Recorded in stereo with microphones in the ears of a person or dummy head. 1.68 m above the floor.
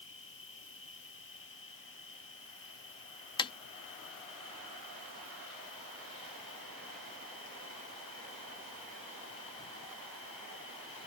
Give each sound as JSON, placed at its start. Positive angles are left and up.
{"t": 0.0, "sound": "an insect", "side_deg": 60}
{"t": 3.4, "sound": "tapping", "side_deg": 20}